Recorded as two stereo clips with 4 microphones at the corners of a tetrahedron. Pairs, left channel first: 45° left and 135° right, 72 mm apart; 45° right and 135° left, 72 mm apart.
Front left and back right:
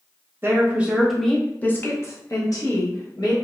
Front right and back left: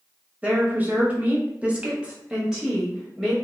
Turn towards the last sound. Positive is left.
turn(degrees=50)